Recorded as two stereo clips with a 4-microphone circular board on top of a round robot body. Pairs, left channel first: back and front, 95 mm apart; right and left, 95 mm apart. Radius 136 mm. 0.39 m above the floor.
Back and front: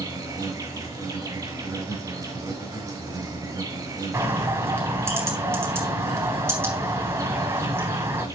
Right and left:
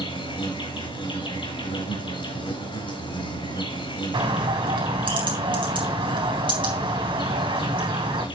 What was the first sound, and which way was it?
An insect, 60° right.